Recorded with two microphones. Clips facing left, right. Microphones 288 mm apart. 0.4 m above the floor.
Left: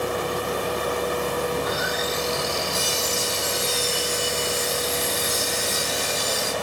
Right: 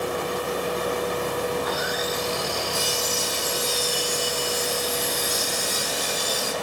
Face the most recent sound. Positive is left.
turn(degrees=25)  # may be behind; listen again after turning